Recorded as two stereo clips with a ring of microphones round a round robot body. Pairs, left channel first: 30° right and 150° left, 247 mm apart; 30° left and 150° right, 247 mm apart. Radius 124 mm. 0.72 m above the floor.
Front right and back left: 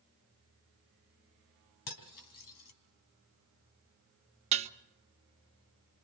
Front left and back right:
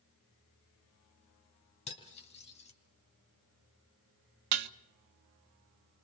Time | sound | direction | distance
1.9 | cutlery clinking | 35° right | 3.5 m
4.5 | dishes clattering | 145° right | 0.7 m